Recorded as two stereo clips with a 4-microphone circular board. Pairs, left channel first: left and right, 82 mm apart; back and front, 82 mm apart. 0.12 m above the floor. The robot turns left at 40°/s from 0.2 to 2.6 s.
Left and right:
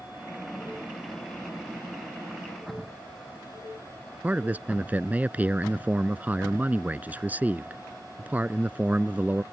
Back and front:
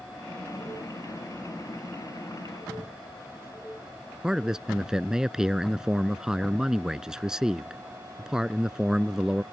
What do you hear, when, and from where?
4.2 s a man speaking: 70° right